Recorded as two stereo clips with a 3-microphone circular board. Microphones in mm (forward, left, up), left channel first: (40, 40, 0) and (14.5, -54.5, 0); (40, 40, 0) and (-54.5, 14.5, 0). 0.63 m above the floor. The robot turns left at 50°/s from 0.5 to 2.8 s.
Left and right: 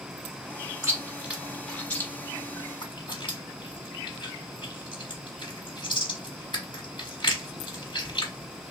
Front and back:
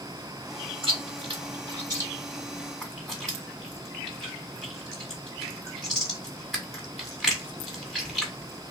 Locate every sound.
0.8 s chewing: 160° right, 1.2 m; by 8.7 s 100° left, 1.2 m